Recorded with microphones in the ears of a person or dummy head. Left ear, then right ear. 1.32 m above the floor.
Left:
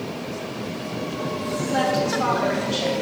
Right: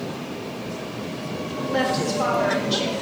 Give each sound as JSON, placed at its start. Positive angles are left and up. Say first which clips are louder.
{"t": 1.7, "sound": "a woman speaking", "louder": "left 1 dB", "side_deg": -10, "distance_m": 1.7}